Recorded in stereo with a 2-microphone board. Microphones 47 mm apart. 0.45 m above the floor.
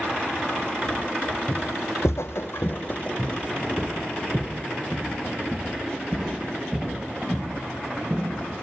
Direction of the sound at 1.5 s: 65° left (ahead or behind).